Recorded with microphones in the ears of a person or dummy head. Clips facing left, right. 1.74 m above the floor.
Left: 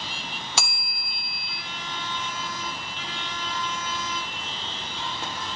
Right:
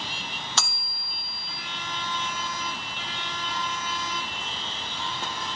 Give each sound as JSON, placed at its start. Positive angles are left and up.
{"t": 0.6, "sound": "a bell", "side_deg": 10, "distance_m": 0.7}